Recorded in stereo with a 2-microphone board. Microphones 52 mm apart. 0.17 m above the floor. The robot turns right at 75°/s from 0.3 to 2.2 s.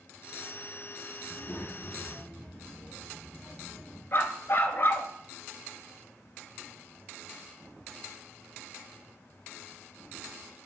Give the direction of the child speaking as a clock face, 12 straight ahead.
8 o'clock.